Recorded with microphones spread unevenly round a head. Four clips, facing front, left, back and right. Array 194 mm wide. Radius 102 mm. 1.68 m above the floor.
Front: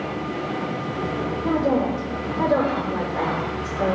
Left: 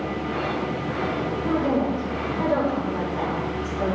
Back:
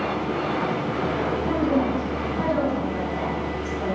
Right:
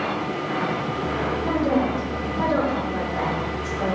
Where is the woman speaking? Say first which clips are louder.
Even, front 3 dB; 20° left, 5.5 m.